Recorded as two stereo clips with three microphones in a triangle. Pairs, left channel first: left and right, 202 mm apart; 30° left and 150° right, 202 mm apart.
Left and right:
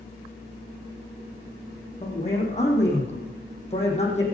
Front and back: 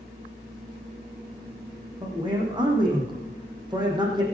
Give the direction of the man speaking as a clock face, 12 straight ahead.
7 o'clock.